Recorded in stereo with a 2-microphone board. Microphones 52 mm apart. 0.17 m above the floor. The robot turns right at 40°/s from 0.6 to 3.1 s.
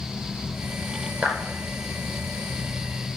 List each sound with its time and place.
1.2 s a clap: 30° right (ahead or behind), 5 m; by 1.4 s 20° right (ahead or behind), 5 m